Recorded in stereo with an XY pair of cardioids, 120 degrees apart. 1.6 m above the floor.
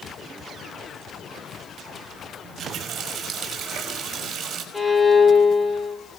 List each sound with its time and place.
2.4 s a running tap: 50° right, 5.5 m
4.7 s a violin: 15° left, 4.5 m